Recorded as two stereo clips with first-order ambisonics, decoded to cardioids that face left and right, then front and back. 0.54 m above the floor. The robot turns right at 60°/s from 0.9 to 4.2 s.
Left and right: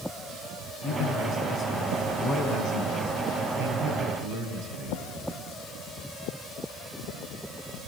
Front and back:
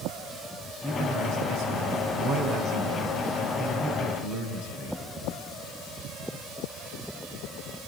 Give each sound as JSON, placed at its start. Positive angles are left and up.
{"t": 0.8, "sound": "a man speaking", "azimuth_deg": 120, "distance_m": 4.5}